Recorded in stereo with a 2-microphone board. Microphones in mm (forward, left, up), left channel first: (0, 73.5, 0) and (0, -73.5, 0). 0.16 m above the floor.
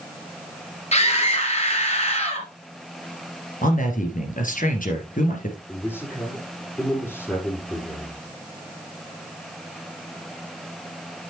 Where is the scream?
45° left (ahead or behind), 3.5 m.